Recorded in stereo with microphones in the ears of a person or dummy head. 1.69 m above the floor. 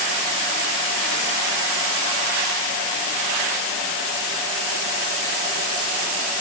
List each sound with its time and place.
Only background noise.